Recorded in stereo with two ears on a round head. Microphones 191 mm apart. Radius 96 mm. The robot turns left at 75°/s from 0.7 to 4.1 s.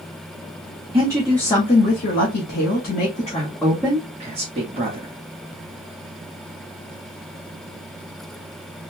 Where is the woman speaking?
155° right, 1.1 m; by 5.1 s 30° right, 1.1 m.